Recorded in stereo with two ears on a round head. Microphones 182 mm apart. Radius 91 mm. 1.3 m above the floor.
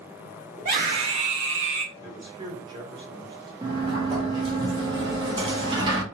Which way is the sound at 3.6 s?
25° right (ahead or behind).